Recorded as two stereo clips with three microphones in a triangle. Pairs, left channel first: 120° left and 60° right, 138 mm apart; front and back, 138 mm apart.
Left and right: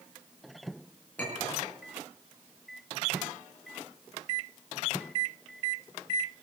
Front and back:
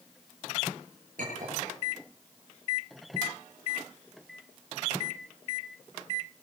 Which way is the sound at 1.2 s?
160° right.